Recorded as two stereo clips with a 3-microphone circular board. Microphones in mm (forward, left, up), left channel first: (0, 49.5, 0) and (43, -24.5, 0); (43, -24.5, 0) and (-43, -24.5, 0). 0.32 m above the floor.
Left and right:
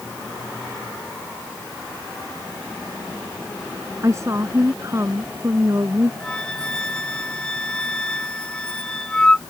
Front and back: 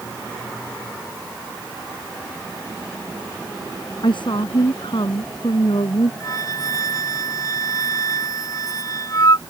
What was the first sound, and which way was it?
A woman speaking, 5° right.